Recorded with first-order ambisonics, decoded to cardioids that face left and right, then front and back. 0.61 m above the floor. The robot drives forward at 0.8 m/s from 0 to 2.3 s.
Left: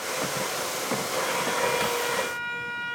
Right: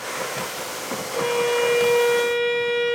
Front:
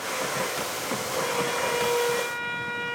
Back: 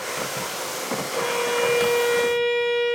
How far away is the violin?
About 3 m.